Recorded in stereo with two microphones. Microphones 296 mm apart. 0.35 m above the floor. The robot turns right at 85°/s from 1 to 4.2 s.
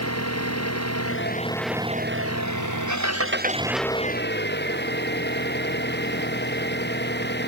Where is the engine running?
125° left; by 7.5 s 35° left.